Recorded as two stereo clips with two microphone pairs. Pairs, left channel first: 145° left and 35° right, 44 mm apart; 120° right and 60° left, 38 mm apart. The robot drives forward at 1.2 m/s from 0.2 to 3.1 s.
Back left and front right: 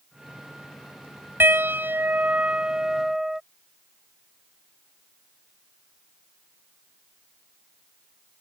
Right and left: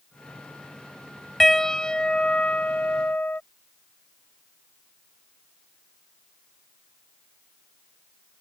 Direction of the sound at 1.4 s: 40° right.